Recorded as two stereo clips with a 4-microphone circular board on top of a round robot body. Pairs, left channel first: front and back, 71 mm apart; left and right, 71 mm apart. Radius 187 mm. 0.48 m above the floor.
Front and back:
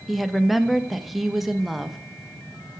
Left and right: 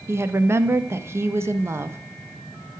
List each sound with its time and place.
0.1 s a woman speaking: 95° right, 0.7 m